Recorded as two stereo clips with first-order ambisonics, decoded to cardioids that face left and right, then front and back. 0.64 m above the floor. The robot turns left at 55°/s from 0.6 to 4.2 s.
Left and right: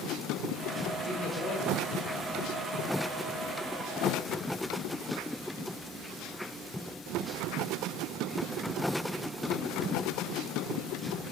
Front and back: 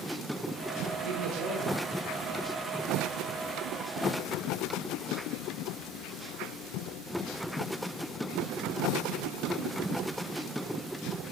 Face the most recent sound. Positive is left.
turn(degrees=-10)